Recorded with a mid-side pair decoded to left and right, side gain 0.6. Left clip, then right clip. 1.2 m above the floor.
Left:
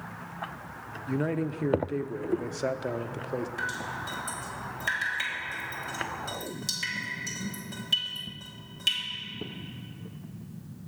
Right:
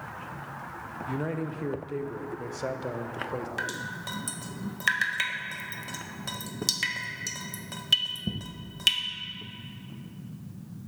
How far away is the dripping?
About 1.1 m.